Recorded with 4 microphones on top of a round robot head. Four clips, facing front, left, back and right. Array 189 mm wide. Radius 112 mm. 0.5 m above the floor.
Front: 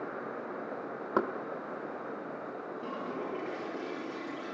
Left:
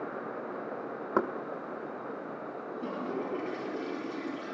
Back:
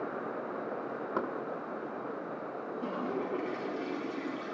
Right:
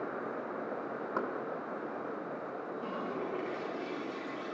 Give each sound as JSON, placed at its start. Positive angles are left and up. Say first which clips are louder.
{"t": 1.2, "sound": "knocking", "louder": "left 7 dB, front 5 dB", "azimuth_deg": 60, "distance_m": 0.6}
{"t": 2.8, "sound": "a toilet flushing", "louder": "left 4 dB, back 4 dB", "azimuth_deg": 170, "distance_m": 5.5}